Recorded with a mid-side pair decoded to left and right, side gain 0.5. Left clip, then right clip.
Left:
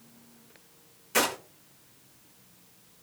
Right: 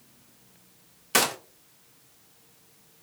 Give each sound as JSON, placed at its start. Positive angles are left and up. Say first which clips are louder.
{"t": 1.1, "sound": "a gunshot", "louder": "right 2 dB", "azimuth_deg": -65, "distance_m": 1.0}